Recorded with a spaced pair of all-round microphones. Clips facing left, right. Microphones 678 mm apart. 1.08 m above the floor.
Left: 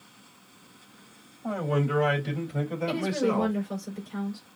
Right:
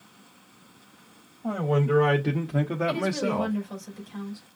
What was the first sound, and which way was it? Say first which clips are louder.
A man speaking: right 3 dB; 50° right (ahead or behind).